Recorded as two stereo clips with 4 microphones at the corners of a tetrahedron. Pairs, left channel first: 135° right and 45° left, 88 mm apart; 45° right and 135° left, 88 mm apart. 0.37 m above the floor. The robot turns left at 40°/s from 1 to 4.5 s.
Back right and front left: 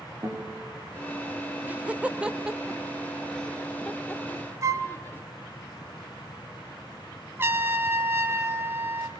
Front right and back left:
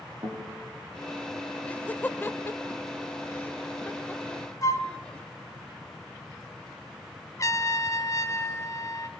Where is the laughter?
5° left, 1.2 m; by 5.2 s 110° right, 1.2 m.